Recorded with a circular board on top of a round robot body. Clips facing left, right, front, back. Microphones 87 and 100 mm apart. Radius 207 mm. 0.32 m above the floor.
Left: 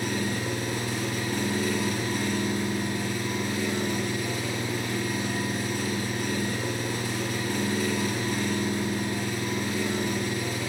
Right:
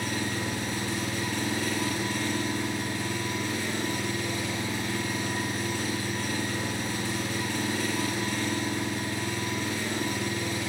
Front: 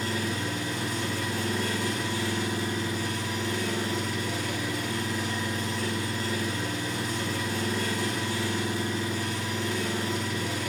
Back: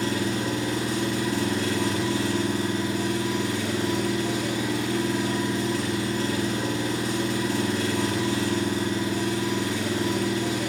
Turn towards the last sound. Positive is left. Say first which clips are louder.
# left 2 dB, back 5 dB
turn(degrees=165)